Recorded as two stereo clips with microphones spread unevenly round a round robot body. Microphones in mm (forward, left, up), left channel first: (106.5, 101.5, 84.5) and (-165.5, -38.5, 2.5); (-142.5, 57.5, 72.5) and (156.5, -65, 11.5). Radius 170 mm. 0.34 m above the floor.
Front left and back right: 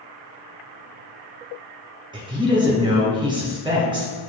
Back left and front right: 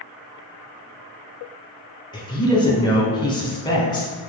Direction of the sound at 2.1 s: 120° right.